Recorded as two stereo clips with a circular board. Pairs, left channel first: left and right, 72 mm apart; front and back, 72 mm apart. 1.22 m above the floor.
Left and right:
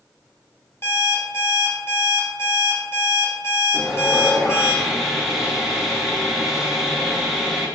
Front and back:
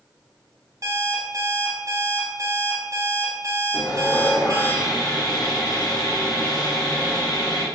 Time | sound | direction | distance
0.8 | an alarm clock | 140° left | 1.1 m
3.7 | sawing | 5° right | 0.7 m